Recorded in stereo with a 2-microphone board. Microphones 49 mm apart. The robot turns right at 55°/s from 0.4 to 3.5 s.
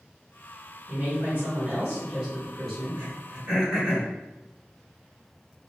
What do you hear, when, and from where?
0.9 s a woman speaking: 25° right (ahead or behind), 1.4 m; by 3.0 s centre (ahead or behind), 1.4 m
3.0 s throat clearing: 35° right (ahead or behind), 1.4 m; by 4.1 s 30° right (ahead or behind), 1.4 m